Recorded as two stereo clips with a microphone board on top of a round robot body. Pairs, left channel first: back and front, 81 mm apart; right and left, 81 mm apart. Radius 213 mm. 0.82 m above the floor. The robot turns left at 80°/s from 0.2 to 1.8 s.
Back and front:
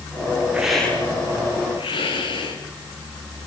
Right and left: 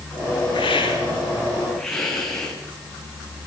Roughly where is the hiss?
Right.